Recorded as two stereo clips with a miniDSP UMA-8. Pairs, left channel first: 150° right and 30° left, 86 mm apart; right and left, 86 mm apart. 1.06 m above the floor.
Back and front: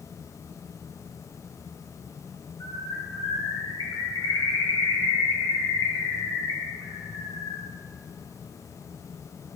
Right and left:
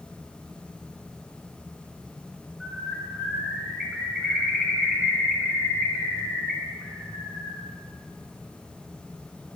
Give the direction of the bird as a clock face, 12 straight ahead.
6 o'clock.